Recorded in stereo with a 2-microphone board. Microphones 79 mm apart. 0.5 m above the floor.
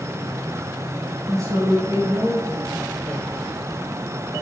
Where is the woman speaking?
45° right (ahead or behind), 3 m; by 3.3 s 40° right (ahead or behind), 2 m.